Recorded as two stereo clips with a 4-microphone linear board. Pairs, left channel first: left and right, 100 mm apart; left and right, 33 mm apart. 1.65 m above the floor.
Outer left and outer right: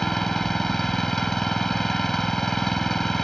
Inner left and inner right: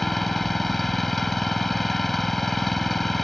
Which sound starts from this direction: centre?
An engine running, at 0.0 s.